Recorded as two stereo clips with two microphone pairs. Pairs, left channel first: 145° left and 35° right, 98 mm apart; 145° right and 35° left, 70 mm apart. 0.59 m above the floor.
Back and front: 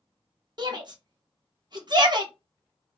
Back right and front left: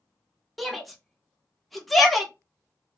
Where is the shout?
55° right, 0.8 m.